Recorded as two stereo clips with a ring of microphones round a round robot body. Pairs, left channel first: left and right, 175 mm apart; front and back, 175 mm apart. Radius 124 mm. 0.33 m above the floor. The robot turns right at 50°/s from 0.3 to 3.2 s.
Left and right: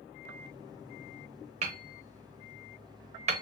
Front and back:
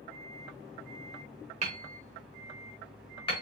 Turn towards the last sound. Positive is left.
turn(degrees=-55)